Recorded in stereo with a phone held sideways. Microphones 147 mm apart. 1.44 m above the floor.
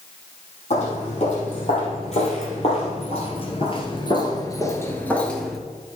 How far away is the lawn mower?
No lawn mower in this recording.